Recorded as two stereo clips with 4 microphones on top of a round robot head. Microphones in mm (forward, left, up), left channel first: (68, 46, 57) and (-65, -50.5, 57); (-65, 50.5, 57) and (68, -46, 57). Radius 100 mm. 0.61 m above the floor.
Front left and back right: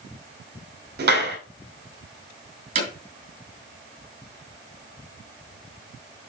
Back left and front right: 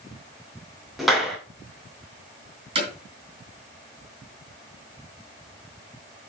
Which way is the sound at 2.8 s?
95° right.